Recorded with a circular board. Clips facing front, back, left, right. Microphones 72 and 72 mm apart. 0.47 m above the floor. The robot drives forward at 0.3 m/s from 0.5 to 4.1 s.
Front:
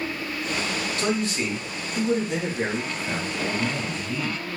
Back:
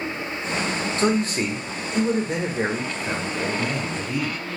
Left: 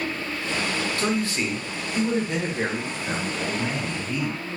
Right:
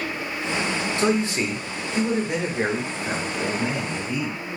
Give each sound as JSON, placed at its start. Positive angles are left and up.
{"t": 1.0, "sound": "a man speaking", "azimuth_deg": -145, "distance_m": 0.9}